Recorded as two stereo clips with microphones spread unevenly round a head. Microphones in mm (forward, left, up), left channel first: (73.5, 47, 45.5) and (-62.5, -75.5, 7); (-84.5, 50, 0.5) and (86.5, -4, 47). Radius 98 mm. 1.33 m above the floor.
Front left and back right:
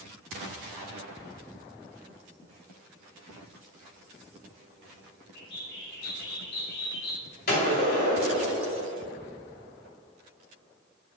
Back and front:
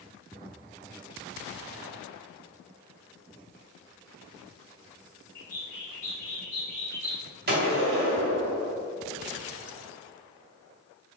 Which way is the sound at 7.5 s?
10° left.